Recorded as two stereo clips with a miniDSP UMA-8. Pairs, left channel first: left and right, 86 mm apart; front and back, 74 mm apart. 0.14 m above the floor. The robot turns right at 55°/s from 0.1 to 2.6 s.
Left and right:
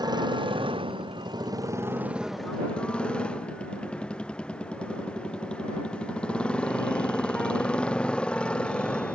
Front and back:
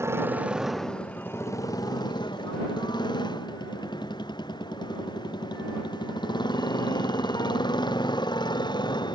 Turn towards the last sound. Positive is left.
turn(degrees=10)